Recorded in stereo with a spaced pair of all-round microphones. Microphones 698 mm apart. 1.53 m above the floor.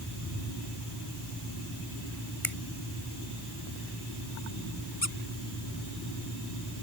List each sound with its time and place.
2.4 s a finger snap: 50° left (ahead or behind)
5.0 s a squeak: 40° left (ahead or behind)